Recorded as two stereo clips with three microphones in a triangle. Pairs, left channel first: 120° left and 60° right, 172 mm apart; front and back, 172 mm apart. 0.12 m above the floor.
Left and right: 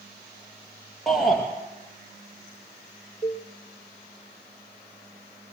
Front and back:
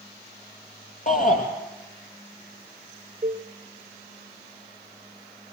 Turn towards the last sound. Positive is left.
turn(degrees=170)